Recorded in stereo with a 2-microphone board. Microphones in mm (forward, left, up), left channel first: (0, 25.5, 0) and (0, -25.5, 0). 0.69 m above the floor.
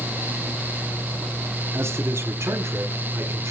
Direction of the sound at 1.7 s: 60° right (ahead or behind).